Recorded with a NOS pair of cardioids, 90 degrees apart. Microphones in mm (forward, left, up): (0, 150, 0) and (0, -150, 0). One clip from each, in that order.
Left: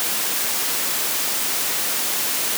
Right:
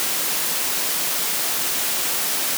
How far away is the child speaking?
I don't hear a child speaking.